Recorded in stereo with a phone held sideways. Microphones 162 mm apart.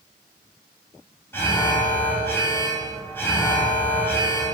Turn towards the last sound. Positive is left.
turn(degrees=15)  # may be behind; listen again after turning